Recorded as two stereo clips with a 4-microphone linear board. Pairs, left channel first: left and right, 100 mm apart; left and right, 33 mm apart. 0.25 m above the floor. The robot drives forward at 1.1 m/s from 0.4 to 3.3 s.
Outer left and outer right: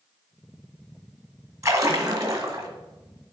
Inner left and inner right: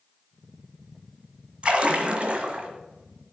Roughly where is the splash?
Right.